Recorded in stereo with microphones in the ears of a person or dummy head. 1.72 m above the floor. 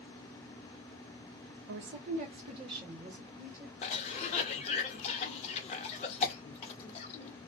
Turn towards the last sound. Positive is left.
turn(degrees=35)  # may be behind; listen again after turning